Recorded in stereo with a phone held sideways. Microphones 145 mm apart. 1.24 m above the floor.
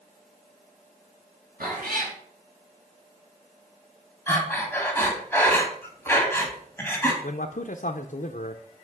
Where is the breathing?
15° left (ahead or behind), 2 m.